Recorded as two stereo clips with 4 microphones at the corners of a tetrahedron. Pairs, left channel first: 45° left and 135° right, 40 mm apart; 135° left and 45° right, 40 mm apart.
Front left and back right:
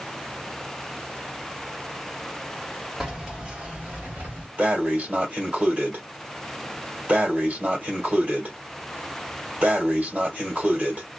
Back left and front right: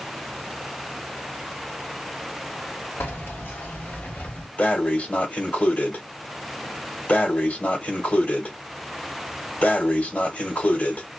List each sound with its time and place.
3.0 s keys jangling: 150° left, 1.5 m; by 4.5 s 175° right, 1.6 m
4.6 s breathing: straight behind, 1.6 m